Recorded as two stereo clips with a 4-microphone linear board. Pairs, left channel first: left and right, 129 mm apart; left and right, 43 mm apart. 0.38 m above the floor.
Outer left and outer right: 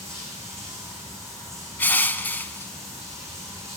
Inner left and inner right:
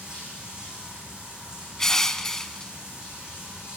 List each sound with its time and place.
0.0 s running water: 20° right (ahead or behind), 9 m
1.8 s crushing: 15° left (ahead or behind), 0.5 m